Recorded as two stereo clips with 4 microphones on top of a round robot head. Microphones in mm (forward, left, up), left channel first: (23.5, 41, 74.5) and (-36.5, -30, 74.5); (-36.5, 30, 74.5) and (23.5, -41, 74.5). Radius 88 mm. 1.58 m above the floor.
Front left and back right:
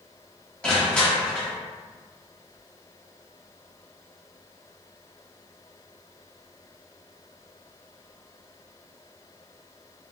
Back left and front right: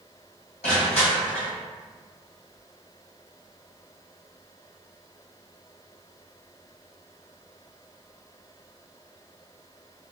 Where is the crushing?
125° left, 1.0 m.